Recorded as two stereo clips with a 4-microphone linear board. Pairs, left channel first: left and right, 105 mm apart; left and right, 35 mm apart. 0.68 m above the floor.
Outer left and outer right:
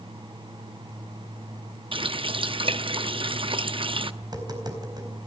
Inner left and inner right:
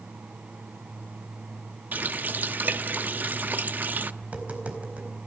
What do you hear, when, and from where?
1.9 s a running tap: 55° right (ahead or behind), 0.7 m
4.2 s tapping: 40° right (ahead or behind), 4 m